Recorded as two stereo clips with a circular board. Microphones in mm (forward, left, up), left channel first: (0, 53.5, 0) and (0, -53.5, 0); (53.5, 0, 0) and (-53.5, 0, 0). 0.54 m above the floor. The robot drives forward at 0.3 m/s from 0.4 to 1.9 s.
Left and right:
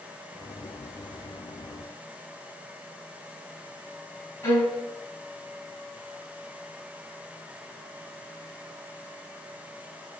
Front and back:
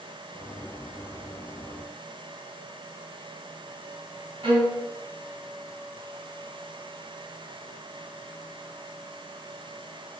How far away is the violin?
About 4.5 m.